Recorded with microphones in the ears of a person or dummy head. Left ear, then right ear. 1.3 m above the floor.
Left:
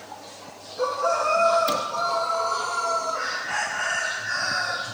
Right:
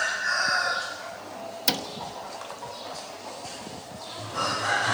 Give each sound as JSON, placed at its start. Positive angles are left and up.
{"t": 1.7, "sound": "a cupboard door", "side_deg": -30, "distance_m": 1.0}